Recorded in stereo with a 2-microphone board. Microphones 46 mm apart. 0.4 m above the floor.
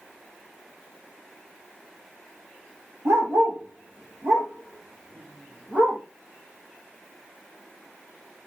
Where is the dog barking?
85° right, 3 m; by 6.0 s 40° right (ahead or behind), 5.5 m.